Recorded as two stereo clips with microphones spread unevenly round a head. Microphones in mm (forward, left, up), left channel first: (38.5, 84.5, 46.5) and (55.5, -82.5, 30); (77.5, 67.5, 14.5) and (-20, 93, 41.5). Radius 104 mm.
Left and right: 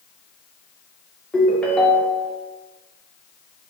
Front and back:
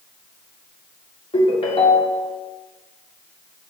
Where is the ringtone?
15° left, 2 m.